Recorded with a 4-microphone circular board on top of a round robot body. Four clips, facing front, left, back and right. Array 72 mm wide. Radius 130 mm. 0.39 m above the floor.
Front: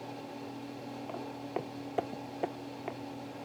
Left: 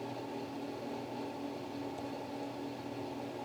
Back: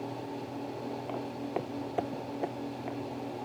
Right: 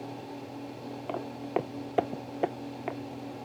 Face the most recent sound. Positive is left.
turn(degrees=-85)